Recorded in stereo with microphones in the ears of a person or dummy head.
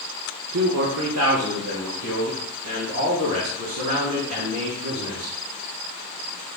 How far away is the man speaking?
About 0.6 m.